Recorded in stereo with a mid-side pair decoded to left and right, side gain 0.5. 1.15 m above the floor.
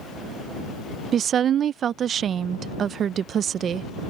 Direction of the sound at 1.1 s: 50° right.